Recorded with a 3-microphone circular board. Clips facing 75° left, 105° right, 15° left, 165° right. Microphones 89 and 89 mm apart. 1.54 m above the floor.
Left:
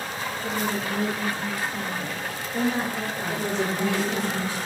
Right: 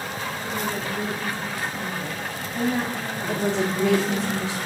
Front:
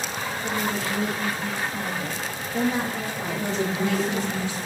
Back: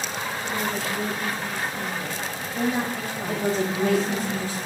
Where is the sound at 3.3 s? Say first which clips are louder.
Right 4 dB, back 3 dB; 115° right, 1.0 m.